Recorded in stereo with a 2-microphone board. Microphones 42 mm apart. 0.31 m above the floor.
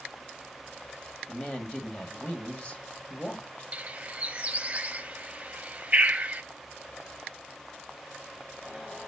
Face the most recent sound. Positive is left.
turn(degrees=-35)  # may be behind; listen again after turning